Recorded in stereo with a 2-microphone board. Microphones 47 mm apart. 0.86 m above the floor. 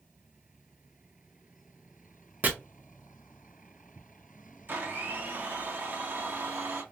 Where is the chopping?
40° right (ahead or behind), 0.8 m.